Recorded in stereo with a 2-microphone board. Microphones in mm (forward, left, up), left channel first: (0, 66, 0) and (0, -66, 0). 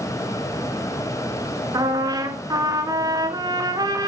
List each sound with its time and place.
1.7 s a trumpet: 30° right (ahead or behind), 1.3 m